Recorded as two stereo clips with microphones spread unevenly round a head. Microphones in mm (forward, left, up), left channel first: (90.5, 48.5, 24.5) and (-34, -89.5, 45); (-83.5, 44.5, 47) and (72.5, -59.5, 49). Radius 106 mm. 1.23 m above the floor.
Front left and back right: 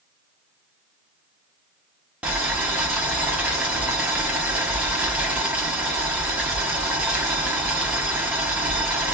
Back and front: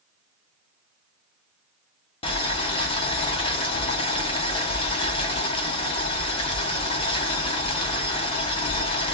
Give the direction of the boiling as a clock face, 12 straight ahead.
6 o'clock.